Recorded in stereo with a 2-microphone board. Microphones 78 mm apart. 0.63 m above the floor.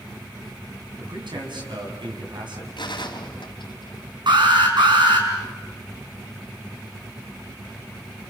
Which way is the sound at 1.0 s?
80° right.